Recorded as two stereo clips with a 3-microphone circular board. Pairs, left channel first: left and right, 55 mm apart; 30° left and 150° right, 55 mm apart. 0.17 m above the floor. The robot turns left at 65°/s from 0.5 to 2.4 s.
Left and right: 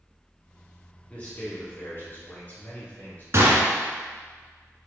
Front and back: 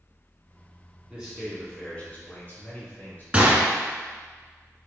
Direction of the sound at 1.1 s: 145° left.